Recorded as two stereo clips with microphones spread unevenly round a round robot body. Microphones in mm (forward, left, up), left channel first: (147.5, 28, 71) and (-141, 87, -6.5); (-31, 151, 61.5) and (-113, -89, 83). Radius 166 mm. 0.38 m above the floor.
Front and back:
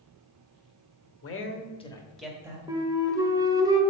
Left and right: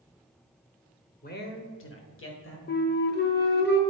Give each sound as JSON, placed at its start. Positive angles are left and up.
{"t": 1.2, "sound": "a man speaking", "azimuth_deg": 30, "distance_m": 1.2}
{"t": 2.7, "sound": "a flute", "azimuth_deg": 105, "distance_m": 1.1}